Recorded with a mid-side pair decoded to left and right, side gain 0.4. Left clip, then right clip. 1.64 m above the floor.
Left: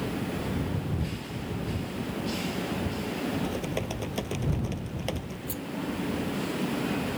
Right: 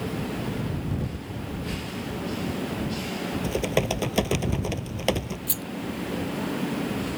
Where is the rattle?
70° right.